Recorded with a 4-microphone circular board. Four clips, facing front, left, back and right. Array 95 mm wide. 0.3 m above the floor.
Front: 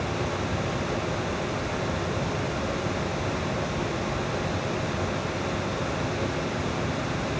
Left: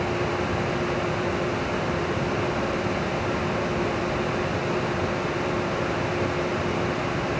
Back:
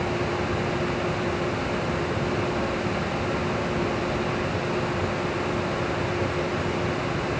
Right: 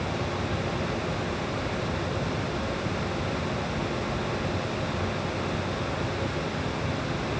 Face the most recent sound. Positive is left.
No sound to turn to.